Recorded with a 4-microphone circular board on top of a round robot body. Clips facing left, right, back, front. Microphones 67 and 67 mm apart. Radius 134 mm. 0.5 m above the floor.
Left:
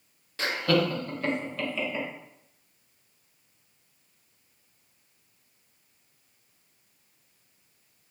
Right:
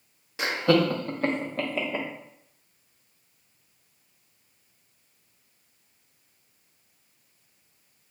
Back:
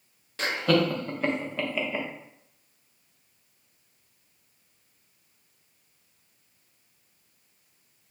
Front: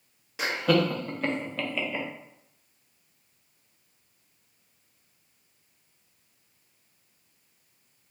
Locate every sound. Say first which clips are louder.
0.4 s laughter: right 3 dB, even; 55° right, 0.9 m; by 2.1 s 110° right, 1.5 m